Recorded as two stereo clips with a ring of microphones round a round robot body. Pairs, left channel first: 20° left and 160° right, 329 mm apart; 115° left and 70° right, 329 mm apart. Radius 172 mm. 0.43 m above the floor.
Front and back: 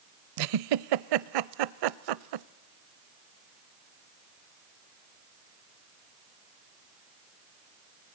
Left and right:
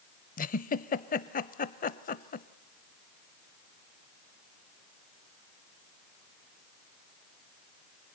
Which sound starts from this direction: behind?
A giggle, at 0.4 s.